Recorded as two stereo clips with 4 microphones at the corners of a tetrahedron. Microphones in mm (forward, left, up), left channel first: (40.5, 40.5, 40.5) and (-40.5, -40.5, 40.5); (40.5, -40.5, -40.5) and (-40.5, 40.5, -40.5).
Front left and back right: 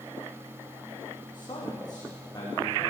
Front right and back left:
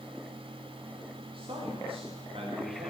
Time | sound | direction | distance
1.3 | a man speaking | 95° left | 10 m